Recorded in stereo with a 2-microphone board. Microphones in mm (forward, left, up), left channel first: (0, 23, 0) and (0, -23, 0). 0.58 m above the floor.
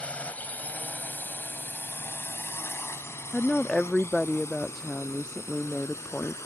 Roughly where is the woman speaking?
Centre.